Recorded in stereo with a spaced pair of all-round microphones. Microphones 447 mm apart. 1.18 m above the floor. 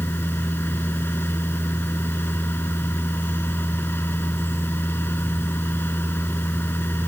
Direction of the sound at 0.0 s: 5° left (ahead or behind).